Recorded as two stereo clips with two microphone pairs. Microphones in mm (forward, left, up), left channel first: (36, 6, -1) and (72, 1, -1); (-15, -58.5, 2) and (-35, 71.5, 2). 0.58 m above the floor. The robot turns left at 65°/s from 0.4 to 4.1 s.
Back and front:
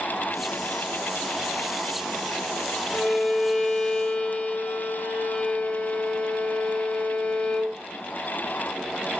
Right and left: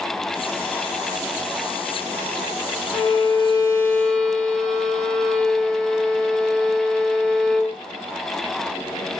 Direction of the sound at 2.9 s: 90° right.